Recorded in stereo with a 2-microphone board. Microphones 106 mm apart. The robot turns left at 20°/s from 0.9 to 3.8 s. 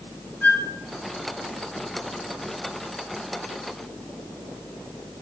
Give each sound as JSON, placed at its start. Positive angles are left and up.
{"t": 0.4, "sound": "a flute", "side_deg": 20, "distance_m": 0.7}